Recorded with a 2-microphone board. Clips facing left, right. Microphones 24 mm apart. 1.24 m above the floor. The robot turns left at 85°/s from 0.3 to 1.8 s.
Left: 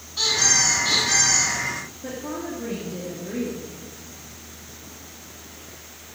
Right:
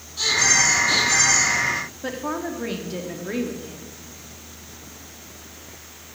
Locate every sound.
0.2 s a squeak: 145° left, 7.5 m; by 1.5 s 40° left, 7.5 m
2.0 s a woman speaking: 70° right (ahead or behind), 2.5 m